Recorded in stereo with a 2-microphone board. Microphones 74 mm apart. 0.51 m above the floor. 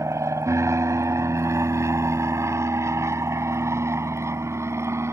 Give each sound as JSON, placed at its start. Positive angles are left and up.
{"t": 0.0, "sound": "an aircraft", "side_deg": -40}